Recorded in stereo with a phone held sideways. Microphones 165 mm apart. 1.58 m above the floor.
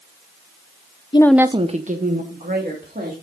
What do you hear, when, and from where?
1.1 s a woman speaking: 30° left (ahead or behind), 0.5 m; by 3.1 s 65° right (ahead or behind), 3 m